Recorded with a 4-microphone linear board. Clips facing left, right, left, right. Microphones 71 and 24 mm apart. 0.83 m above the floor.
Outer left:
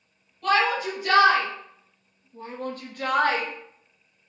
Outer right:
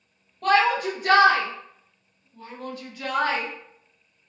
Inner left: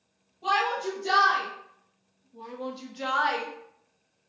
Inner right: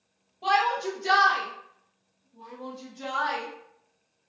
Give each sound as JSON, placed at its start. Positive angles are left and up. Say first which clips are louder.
{"t": 0.4, "sound": "a shout", "louder": "outer right 2 dB, inner right 2 dB", "side_deg": -50, "distance_m": 1.1}